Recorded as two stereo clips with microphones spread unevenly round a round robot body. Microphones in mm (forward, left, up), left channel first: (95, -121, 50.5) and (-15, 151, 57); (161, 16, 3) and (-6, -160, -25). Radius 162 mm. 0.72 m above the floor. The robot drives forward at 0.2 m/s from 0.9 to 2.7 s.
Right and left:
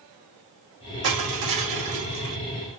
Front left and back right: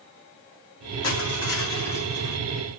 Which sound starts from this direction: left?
Crushing, at 1.0 s.